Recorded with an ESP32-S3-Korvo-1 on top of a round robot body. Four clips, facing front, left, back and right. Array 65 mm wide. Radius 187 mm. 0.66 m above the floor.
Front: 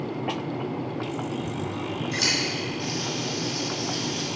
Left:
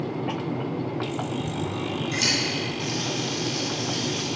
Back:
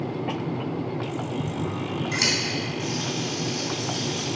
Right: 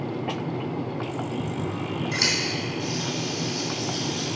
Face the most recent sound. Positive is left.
turn(degrees=110)